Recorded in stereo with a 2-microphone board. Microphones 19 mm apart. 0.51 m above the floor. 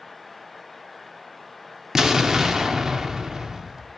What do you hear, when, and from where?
1.9 s an explosion: 35° right (ahead or behind), 0.8 m